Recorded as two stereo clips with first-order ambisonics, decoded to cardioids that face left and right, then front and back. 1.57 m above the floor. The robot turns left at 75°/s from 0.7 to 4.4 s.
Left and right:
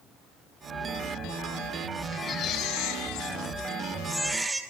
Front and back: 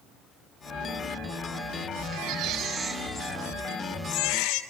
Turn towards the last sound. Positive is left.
turn(degrees=-10)